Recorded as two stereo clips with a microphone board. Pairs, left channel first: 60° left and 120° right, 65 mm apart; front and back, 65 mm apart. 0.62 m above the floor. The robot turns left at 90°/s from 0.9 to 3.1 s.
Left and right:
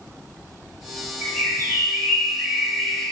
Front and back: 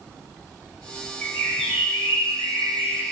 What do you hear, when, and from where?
1.2 s a bird: 55° right, 5 m; by 3.1 s 130° left, 5 m